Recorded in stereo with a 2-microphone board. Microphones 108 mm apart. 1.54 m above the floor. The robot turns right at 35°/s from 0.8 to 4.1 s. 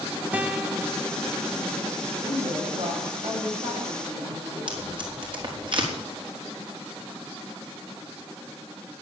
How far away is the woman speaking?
About 8.5 m.